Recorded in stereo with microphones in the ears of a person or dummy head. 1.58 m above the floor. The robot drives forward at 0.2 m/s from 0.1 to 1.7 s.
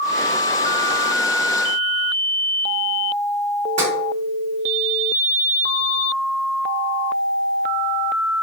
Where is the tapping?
45° right (ahead or behind), 1.3 m.